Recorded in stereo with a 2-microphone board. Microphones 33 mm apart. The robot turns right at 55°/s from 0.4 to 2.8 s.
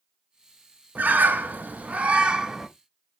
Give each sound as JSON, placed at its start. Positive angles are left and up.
{"t": 0.9, "sound": "a bird", "azimuth_deg": -105, "distance_m": 0.5}